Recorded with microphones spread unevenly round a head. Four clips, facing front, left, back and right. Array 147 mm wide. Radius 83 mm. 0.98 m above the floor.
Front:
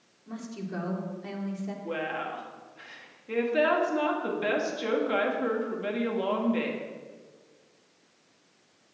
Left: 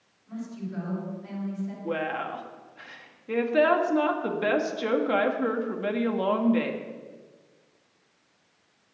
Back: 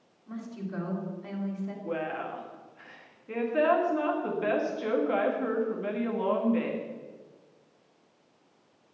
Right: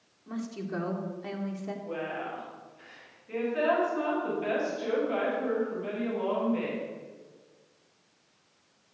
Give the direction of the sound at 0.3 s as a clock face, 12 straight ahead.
2 o'clock.